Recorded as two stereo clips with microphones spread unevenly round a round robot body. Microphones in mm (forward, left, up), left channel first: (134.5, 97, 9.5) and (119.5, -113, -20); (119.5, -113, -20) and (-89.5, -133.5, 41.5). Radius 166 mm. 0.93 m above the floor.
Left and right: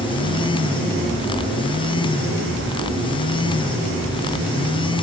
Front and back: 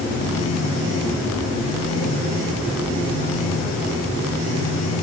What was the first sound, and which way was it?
Only background noise.